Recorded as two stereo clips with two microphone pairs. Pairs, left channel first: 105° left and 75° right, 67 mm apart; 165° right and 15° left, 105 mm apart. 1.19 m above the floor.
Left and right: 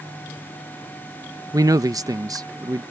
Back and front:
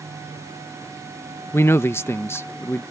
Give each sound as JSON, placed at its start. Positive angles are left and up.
{"t": 1.5, "sound": "a man speaking", "azimuth_deg": -100}